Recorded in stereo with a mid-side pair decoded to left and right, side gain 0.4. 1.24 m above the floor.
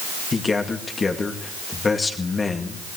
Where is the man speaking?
35° left, 2 m.